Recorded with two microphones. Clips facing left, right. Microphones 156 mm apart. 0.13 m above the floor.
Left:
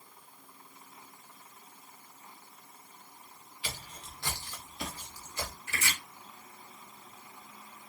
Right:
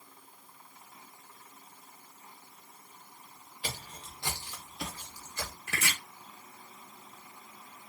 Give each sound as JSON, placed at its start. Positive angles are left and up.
{"t": 3.6, "sound": "footsteps", "side_deg": -45, "distance_m": 0.9}
{"t": 5.7, "sound": "chopping", "side_deg": -70, "distance_m": 0.7}